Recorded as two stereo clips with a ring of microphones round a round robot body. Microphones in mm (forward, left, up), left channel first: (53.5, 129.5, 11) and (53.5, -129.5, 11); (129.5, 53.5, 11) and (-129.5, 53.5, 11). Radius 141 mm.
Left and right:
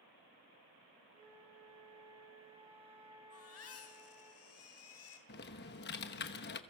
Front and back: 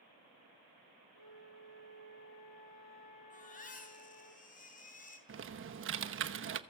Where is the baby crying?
60° left, 4 m.